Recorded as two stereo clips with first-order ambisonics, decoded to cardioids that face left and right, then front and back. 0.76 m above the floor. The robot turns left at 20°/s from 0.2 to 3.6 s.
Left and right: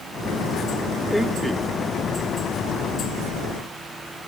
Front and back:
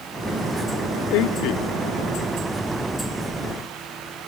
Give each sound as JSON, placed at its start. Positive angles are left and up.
{"t": 1.1, "sound": "a man speaking", "azimuth_deg": 5, "distance_m": 1.5}